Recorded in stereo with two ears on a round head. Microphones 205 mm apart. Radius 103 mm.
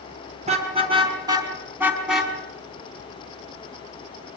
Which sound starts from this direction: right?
A car horn, at 0.4 s.